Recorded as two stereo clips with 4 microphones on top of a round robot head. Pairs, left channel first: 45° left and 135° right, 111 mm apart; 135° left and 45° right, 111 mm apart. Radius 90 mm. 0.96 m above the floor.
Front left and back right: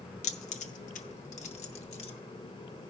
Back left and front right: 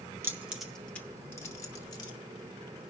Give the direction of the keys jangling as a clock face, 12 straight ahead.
11 o'clock.